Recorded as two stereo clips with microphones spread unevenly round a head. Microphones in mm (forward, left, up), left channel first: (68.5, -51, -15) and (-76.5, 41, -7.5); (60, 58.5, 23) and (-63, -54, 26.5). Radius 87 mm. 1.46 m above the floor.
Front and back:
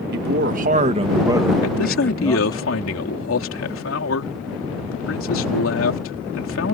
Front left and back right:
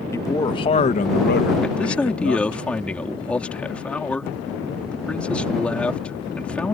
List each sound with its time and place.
0.1 s a man speaking: 115° left; by 2.6 s 35° left
1.6 s a man speaking: 40° right